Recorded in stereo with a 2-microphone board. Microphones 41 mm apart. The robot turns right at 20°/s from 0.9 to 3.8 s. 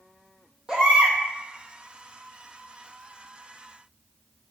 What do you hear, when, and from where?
0.7 s a baby crying: 25° right (ahead or behind), 2 m; by 1.2 s 20° right (ahead or behind), 2 m